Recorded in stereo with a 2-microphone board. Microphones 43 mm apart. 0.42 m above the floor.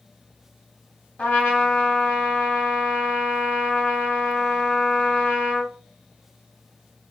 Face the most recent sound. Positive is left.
turn(degrees=35)  # may be behind; listen again after turning